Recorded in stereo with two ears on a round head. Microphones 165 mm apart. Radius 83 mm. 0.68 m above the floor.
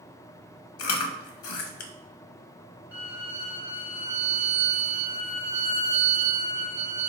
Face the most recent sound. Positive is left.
turn(degrees=-10)  # may be behind; listen again after turning